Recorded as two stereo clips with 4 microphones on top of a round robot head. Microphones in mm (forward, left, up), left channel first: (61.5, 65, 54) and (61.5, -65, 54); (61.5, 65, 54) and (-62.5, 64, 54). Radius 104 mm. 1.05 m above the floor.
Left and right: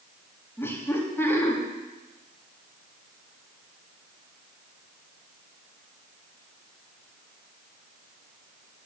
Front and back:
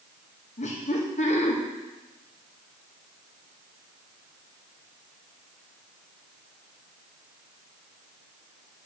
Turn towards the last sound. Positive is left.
turn(degrees=20)